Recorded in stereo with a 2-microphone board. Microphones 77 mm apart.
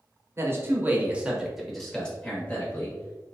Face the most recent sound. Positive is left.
turn(degrees=30)  # may be behind; listen again after turning